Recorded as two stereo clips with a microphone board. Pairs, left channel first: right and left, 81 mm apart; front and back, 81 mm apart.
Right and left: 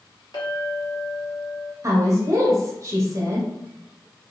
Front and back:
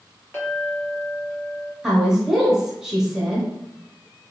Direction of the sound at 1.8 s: 100° left.